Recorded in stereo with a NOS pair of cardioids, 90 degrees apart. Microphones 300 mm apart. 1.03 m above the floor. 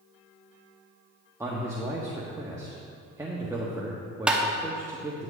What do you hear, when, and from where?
1.4 s a man speaking: 10° right, 1.5 m
4.3 s tapping: 5° right, 1.2 m